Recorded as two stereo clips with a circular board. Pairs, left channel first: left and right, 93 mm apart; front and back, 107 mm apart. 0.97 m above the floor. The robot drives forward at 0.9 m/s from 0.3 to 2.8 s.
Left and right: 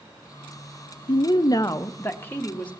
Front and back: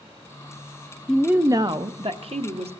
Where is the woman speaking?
80° left, 0.5 m; by 2.7 s 165° left, 1.5 m.